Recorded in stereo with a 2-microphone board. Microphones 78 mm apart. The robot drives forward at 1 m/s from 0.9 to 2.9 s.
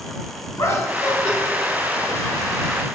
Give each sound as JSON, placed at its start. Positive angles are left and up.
{"t": 0.6, "sound": "laughter", "side_deg": 40, "distance_m": 2.5}